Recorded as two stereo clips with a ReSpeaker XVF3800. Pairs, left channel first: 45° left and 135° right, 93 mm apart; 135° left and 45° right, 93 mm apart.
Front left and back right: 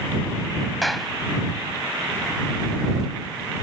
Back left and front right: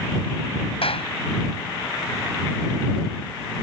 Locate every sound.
0.8 s a clap: 135° left